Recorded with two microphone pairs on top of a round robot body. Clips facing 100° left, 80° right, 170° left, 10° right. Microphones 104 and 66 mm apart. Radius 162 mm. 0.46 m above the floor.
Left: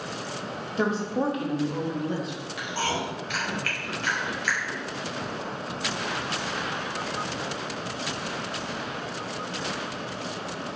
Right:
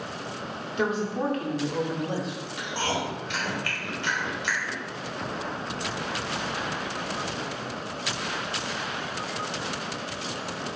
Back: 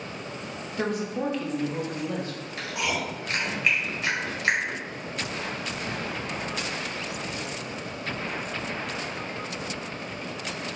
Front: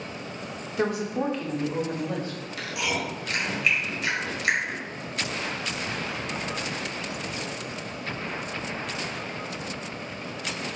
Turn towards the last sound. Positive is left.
turn(degrees=-140)